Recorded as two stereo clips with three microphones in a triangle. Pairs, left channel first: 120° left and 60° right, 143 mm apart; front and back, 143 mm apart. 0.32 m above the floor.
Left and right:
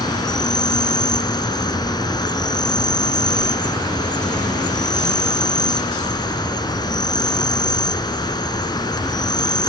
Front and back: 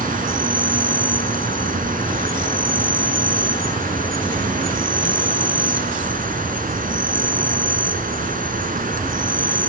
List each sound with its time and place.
0.0 s an insect: straight behind, 2.5 m